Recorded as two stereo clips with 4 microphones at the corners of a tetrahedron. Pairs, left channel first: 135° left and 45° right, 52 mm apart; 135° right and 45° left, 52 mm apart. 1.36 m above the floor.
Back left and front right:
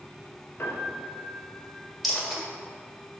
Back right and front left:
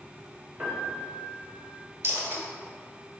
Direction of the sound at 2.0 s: 45° left.